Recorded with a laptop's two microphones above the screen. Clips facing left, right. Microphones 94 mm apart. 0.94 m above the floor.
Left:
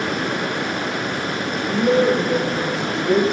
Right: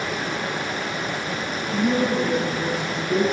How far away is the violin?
No violin in this recording.